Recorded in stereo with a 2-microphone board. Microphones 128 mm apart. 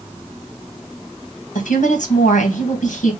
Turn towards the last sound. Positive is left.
turn(degrees=80)